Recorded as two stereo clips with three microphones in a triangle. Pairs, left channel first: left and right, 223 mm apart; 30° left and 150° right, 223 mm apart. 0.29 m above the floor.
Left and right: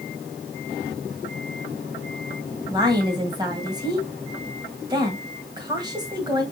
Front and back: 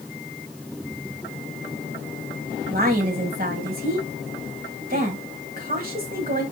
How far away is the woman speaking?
About 1.7 m.